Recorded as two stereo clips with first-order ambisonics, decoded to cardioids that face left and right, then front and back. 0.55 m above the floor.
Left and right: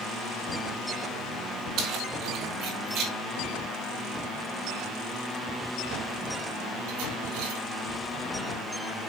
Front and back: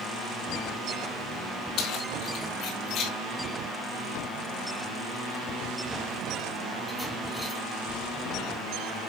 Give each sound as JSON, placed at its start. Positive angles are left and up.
{"t": 1.8, "sound": "keys jangling", "azimuth_deg": -45, "distance_m": 5.0}